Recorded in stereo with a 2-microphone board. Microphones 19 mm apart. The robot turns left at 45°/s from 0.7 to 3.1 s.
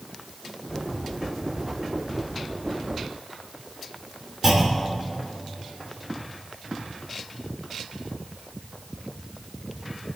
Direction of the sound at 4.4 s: 30° right (ahead or behind).